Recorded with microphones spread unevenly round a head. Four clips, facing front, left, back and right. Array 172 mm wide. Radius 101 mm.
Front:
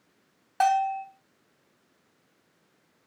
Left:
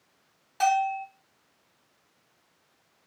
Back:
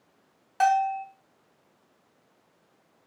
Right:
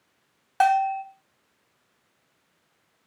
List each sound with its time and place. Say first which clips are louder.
0.6 s a bell: right 4 dB, back 1 dB; 60° right, 2.5 m